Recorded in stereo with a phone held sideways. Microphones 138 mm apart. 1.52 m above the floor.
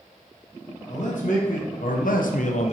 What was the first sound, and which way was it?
A man speaking, 65° left (ahead or behind).